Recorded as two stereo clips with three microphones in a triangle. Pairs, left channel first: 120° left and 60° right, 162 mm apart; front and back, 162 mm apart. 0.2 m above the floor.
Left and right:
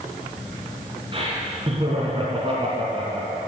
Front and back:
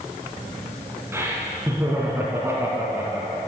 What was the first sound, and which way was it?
Laughter, 105° right.